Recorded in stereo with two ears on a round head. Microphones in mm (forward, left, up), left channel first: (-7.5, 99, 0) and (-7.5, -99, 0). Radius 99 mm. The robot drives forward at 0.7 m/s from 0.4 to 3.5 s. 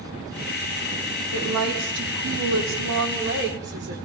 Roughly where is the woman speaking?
Right.